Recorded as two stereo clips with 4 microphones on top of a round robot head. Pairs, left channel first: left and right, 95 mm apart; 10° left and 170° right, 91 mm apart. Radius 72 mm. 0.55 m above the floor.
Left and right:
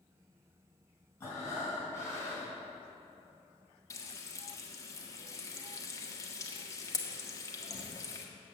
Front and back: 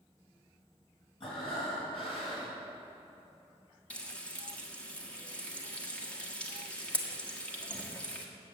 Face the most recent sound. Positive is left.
turn(degrees=80)